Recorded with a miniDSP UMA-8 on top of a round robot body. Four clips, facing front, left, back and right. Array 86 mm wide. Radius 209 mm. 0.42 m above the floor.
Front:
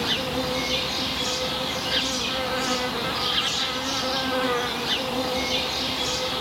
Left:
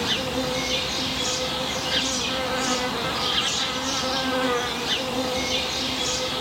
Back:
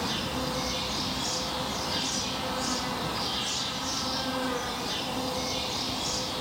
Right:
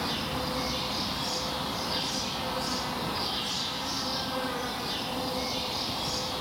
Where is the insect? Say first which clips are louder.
Left 6 dB, front 5 dB; 50° left, 1.4 m.